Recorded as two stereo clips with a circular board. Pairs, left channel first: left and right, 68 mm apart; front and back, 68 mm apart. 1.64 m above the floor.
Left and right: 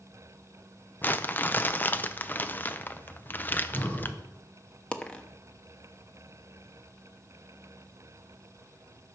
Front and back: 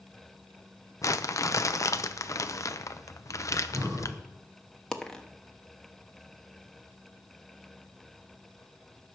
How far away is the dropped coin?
About 1.0 m.